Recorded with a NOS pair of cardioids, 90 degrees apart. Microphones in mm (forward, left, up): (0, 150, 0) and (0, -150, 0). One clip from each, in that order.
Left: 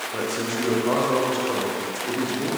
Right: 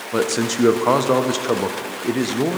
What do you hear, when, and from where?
0.1 s a man speaking: 55° right, 0.7 m